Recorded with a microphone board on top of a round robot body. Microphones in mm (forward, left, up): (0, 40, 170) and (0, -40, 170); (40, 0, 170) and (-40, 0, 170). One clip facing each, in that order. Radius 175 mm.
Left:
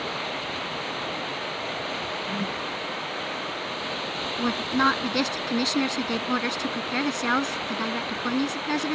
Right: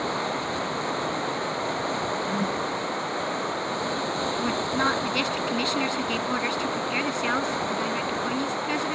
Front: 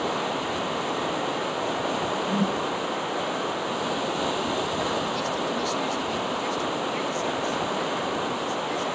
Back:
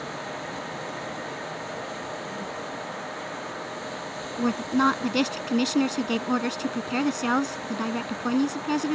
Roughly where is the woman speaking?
Behind.